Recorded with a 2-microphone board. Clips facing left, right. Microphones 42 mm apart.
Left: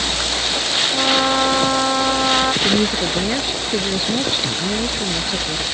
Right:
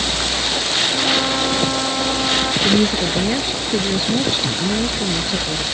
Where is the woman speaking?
5° left (ahead or behind).